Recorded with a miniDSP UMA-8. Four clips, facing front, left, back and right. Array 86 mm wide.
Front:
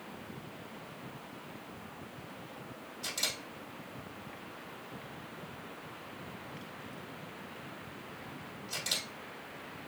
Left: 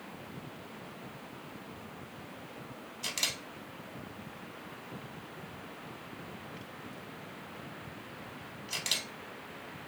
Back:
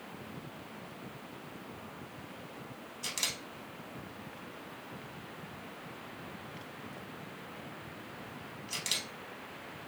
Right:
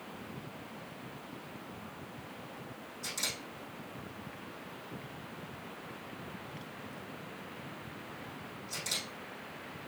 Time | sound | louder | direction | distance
3.0 | a camera shutter | left 2 dB, front 1 dB | 105° left | 2 m